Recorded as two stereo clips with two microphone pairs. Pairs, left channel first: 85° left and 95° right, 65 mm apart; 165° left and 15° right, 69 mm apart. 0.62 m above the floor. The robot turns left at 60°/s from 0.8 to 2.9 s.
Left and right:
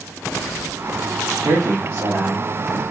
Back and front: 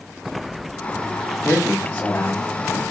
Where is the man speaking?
100° right, 1.1 m; by 2.8 s 175° left, 1.1 m.